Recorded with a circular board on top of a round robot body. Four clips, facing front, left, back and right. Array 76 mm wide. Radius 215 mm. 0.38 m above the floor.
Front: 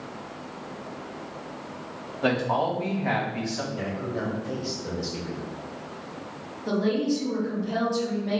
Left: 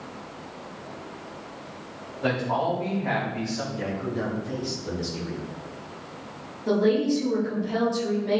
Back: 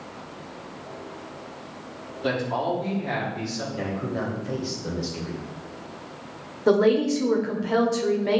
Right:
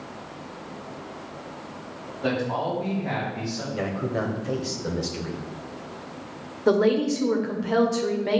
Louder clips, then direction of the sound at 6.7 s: Right 2 dB, back 6 dB; 140° right.